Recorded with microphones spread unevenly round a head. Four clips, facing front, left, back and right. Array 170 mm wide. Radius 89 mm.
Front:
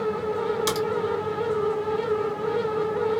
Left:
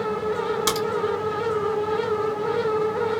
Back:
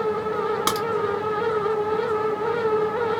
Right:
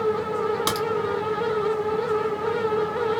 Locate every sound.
0.7 s a crack: straight behind, 2.5 m